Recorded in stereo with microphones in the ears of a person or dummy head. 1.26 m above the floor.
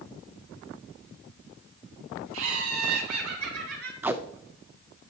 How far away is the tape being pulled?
About 0.6 m.